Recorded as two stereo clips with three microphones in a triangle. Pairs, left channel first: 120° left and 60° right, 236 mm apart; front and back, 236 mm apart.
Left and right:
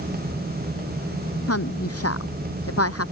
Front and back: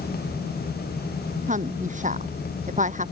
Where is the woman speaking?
125° left.